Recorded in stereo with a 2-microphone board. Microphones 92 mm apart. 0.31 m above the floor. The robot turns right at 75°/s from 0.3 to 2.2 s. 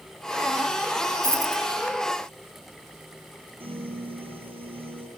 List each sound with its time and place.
1.2 s a dropped coin: 25° right (ahead or behind), 0.7 m; by 1.6 s 55° right (ahead or behind), 0.7 m
3.6 s a piano: 85° right, 1.5 m